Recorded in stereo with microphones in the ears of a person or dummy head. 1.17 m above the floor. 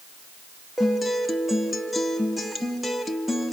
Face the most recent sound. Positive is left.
turn(degrees=-5)  # may be behind; listen again after turning